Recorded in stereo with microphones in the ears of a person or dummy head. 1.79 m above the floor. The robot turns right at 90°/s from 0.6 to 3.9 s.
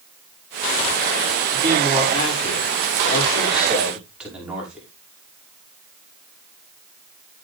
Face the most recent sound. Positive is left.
turn(degrees=-175)